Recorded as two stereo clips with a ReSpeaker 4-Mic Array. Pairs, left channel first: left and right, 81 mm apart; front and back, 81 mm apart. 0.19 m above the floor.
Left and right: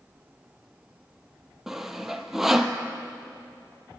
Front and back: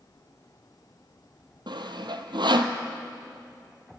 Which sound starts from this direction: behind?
Sawing, at 1.7 s.